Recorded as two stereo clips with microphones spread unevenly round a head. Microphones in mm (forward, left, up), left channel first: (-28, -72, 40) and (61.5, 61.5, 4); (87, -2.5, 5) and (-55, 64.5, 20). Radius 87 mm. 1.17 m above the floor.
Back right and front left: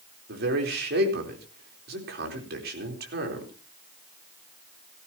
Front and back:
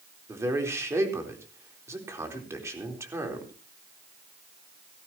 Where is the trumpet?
I don't hear a trumpet.